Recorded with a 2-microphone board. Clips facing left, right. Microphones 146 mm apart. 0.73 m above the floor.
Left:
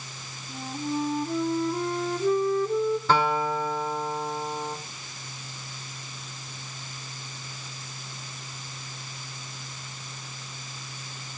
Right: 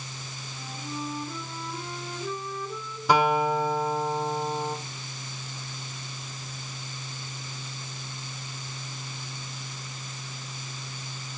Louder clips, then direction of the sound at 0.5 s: Left 9 dB; 50° left (ahead or behind).